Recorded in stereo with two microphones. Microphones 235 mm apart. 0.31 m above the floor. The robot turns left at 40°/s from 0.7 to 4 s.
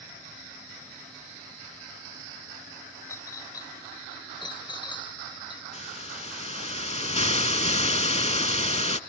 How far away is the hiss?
About 0.5 m.